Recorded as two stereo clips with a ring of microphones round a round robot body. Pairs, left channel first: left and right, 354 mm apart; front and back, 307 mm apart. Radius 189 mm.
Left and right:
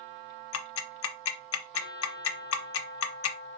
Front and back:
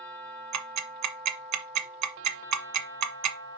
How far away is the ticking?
About 0.9 m.